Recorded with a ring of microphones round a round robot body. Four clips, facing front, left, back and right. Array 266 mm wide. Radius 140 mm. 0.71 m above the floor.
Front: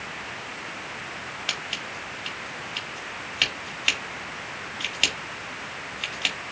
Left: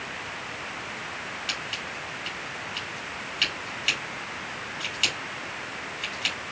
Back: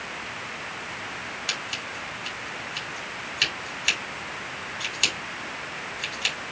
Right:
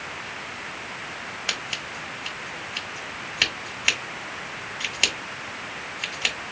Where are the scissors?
60° right, 1.7 m.